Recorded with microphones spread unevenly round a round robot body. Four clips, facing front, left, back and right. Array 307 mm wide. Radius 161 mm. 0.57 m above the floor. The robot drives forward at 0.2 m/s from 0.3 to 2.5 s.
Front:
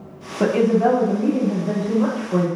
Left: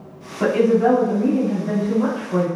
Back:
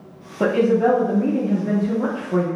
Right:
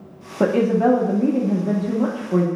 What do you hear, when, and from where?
0.4 s a woman speaking: 75° right, 0.7 m; by 2.5 s 120° right, 0.8 m